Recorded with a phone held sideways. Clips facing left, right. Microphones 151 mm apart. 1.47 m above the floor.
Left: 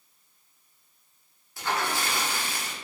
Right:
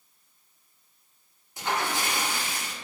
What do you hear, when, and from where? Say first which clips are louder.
1.6 s a splash: even; 20° right (ahead or behind), 0.7 m